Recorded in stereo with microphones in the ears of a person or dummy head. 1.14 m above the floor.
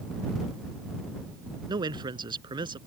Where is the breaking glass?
No breaking glass in this recording.